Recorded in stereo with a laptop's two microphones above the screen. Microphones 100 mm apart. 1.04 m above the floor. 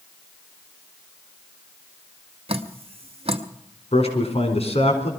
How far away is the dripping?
About 0.8 m.